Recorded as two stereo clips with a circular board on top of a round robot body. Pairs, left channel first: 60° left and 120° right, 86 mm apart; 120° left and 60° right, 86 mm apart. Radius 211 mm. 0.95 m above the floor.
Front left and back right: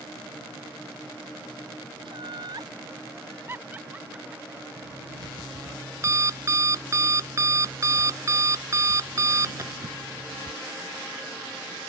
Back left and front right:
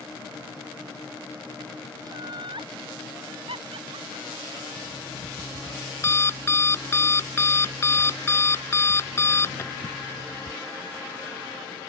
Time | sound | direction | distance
2.0 | laughter | 100° right | ?
4.8 | an alarm clock | 175° right | ?